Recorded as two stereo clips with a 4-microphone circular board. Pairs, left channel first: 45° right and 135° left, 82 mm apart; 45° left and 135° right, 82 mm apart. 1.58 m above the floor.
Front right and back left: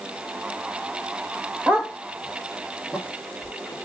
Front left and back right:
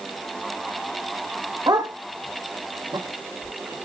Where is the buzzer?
I don't hear a buzzer.